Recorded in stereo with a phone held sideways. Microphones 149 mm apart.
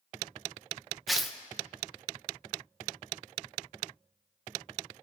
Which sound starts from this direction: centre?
Tearing paper, at 1.1 s.